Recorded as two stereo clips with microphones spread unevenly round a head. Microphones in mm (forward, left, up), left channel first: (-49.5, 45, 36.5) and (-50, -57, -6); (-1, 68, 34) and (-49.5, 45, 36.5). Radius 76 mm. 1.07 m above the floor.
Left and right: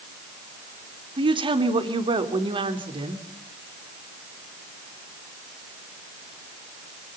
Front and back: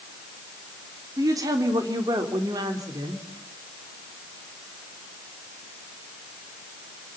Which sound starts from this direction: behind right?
A woman speaking, at 1.2 s.